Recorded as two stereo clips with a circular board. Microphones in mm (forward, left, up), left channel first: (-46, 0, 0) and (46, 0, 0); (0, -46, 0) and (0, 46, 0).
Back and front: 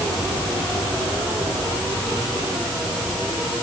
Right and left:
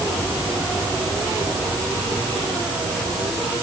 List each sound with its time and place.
Only background noise.